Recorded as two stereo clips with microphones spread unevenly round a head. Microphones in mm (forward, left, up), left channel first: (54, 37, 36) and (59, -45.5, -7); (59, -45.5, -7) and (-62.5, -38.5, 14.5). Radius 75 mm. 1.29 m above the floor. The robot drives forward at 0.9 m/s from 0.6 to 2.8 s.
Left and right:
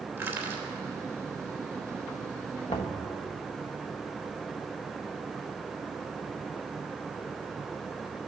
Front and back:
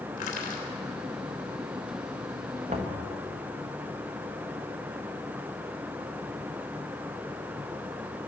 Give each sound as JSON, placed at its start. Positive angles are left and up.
{"t": 0.2, "sound": "crushing", "azimuth_deg": -20, "distance_m": 3.0}
{"t": 2.7, "sound": "knocking", "azimuth_deg": 125, "distance_m": 1.1}